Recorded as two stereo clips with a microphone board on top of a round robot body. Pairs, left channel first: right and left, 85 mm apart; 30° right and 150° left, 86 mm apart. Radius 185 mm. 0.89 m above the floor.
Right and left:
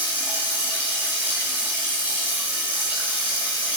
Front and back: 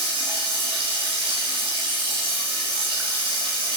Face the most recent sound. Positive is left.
turn(degrees=165)